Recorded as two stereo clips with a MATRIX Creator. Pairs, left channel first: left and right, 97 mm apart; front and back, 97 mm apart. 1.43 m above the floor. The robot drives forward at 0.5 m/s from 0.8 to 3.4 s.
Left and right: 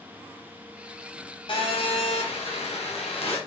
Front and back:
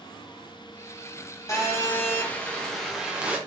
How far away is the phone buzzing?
About 1.3 m.